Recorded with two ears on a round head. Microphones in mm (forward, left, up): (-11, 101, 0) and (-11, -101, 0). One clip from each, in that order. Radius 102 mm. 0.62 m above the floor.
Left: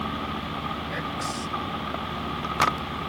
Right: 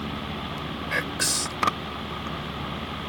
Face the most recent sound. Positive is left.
turn(degrees=-75)  # may be behind; listen again after turning